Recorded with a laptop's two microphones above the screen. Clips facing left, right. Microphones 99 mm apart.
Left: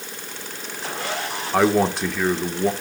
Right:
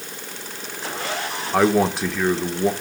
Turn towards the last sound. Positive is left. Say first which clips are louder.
# even
turn(degrees=0)  # may be behind; listen again after turning